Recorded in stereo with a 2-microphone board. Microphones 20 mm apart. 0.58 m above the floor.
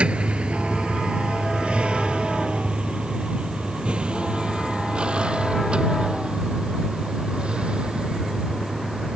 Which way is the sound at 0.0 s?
80° right.